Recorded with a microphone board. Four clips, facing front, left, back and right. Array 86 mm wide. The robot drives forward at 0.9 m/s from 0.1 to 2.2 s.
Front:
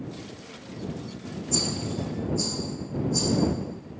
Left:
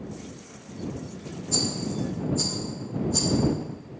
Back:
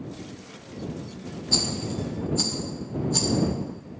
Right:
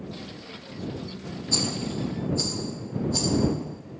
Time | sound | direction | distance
1.5 | a rattle | 150° right | 0.7 m